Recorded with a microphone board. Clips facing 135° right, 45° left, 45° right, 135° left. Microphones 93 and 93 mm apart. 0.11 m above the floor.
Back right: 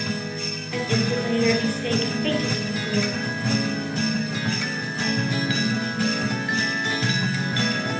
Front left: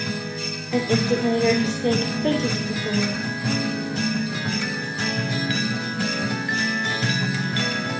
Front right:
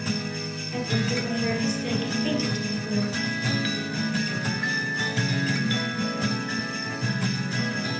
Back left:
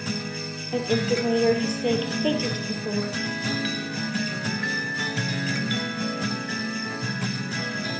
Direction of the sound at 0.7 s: 105° left.